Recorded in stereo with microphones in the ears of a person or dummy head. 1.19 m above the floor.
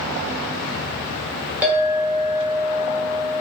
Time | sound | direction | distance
1.6 | a clink | 5° right (ahead or behind) | 1.0 m